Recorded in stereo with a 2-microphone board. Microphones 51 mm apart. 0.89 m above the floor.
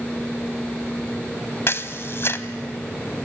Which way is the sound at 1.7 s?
50° left (ahead or behind).